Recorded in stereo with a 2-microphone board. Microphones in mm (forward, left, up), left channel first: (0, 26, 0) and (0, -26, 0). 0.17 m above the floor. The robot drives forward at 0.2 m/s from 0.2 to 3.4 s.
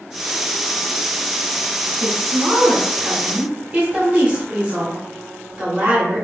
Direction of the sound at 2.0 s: 35° right (ahead or behind).